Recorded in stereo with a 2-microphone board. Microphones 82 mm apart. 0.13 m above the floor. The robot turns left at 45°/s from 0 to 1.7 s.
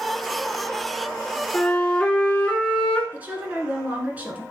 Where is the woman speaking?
20° right (ahead or behind), 1.2 m.